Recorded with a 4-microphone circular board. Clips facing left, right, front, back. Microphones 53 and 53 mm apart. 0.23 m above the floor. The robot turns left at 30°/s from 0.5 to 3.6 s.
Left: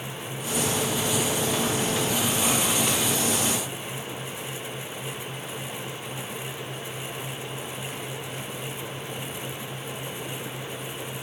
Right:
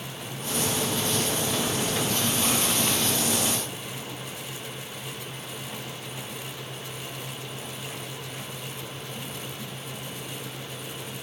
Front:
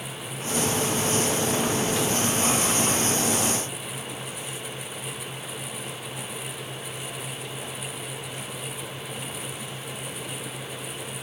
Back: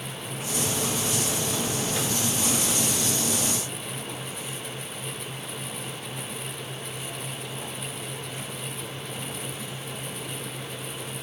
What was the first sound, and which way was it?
Only background noise.